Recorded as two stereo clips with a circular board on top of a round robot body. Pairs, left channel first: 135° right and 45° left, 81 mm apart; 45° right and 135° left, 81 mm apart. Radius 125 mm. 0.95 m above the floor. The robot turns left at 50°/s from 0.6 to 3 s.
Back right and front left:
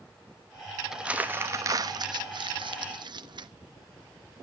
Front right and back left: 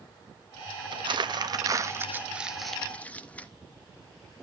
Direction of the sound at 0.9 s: 130° left.